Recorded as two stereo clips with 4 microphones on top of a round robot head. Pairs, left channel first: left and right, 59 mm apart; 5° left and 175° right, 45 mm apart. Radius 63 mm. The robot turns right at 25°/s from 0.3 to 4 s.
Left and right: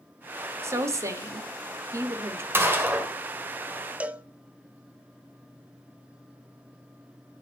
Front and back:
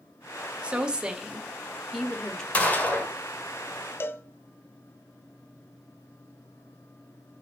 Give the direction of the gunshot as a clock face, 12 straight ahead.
2 o'clock.